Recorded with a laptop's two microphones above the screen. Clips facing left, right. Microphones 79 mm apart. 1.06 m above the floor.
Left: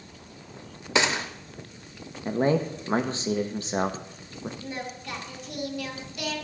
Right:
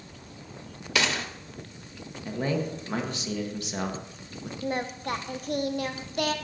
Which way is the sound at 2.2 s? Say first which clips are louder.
Left 5 dB; 35° left (ahead or behind).